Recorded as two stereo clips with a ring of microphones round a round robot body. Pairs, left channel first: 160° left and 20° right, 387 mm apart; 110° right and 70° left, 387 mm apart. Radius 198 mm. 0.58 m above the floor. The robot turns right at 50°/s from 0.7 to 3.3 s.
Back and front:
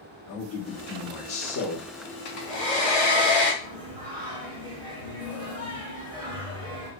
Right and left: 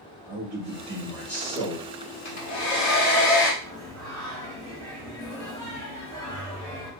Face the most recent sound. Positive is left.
turn(degrees=-30)